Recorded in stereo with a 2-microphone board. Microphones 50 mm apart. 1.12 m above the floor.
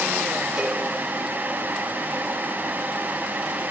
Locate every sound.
0.6 s a cowbell: 10° right (ahead or behind), 4 m